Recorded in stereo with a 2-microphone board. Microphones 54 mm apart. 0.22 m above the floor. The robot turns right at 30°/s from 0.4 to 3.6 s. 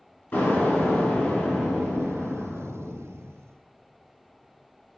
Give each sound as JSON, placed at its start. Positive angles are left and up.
{"t": 0.3, "sound": "an explosion", "azimuth_deg": 120, "distance_m": 1.7}